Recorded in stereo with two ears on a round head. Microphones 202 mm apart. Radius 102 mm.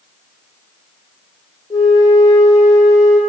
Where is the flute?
15° left (ahead or behind), 1.1 m.